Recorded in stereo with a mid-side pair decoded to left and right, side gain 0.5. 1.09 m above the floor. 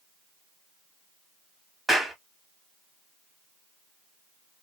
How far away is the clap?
About 1.8 m.